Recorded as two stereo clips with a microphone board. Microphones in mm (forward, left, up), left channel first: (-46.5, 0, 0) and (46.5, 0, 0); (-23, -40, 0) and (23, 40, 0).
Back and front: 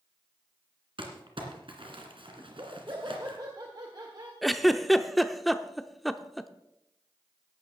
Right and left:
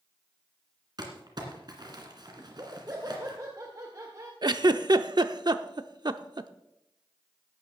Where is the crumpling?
20° left, 2.5 m.